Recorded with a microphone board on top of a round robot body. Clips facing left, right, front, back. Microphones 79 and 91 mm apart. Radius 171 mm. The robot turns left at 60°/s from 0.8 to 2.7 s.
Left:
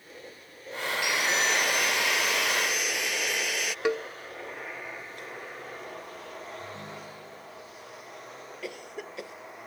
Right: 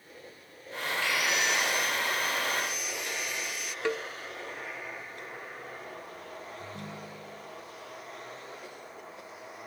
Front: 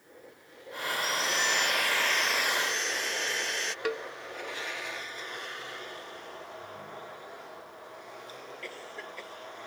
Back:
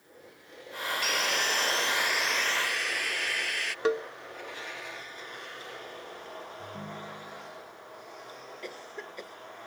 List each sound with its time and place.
1.0 s sawing: 165° left; by 3.8 s 65° left
3.9 s a cowbell: 155° left
6.6 s a ringtone: 140° right
8.6 s a cough: 110° left